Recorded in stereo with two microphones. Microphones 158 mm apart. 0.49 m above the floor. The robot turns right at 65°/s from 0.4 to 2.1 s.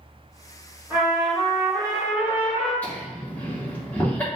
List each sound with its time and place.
0.9 s a trumpet: 30° right, 1.4 m; by 2.7 s 50° left, 1.4 m
2.8 s laughter: 10° left (ahead or behind), 1.0 m